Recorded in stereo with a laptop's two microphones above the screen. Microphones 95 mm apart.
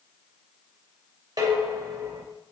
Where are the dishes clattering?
50° right (ahead or behind), 3 m.